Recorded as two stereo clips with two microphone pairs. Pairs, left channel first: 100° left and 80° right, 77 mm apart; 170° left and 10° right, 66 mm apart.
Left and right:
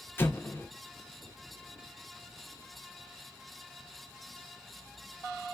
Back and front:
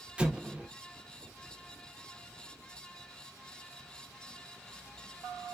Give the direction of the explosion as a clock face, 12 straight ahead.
10 o'clock.